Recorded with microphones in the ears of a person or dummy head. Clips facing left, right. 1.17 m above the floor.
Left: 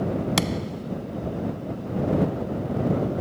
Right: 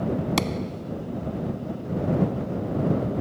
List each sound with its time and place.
0.4 s a thud: 10° left (ahead or behind)